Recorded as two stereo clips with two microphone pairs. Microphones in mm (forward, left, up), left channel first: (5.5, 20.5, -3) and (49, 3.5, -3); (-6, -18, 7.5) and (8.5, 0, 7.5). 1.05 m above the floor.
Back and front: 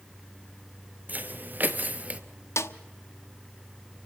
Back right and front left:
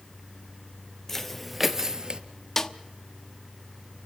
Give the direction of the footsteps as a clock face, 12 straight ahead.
2 o'clock.